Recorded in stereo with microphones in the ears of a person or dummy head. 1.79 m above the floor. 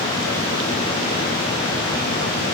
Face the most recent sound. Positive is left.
No sound to turn to.